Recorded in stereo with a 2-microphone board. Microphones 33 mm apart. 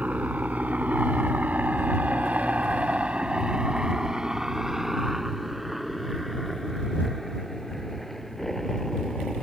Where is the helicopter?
45° right (ahead or behind); by 9.4 s 5° left (ahead or behind).